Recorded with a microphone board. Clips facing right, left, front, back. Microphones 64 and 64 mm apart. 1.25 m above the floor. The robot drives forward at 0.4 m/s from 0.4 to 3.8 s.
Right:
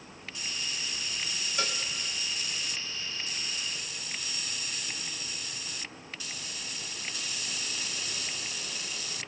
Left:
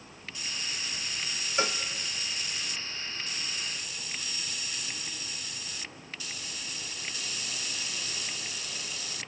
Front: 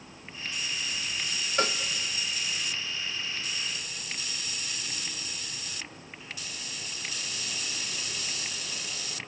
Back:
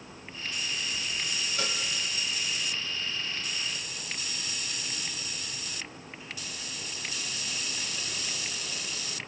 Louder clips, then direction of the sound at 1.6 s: Left 5 dB, front 8 dB; 30° left.